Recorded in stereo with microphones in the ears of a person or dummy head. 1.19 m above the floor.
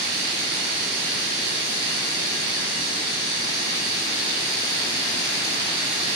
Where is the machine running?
55° right (ahead or behind), 7.5 m.